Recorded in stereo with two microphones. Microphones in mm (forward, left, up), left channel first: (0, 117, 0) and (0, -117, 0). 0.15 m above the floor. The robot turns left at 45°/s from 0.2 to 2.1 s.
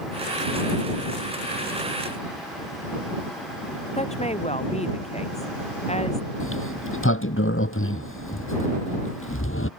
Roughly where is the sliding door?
Left.